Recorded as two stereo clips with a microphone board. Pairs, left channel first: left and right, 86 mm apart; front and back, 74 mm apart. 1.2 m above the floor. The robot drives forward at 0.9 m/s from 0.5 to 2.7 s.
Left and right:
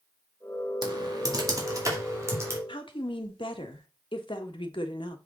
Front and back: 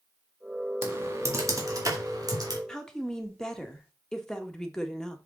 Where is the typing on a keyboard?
120° right, 1.8 m; by 2.6 s 150° right, 3 m.